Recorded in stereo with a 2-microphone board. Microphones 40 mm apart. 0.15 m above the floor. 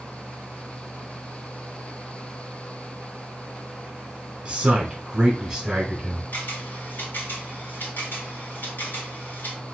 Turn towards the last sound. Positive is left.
turn(degrees=55)  # may be behind; listen again after turning